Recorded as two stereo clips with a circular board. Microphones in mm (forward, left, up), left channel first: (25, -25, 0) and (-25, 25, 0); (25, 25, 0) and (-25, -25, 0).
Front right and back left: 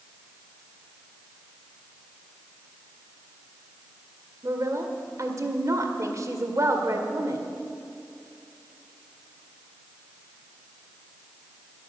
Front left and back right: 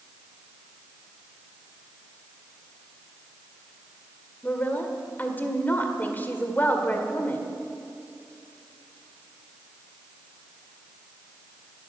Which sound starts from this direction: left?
A woman speaking, at 4.4 s.